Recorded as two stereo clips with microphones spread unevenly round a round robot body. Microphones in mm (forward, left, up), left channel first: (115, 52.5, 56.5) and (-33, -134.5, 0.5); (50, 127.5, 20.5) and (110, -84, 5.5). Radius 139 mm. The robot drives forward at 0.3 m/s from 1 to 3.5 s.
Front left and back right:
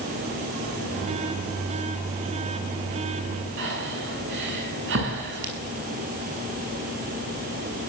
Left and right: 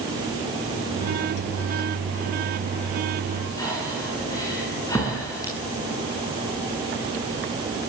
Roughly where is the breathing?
Behind.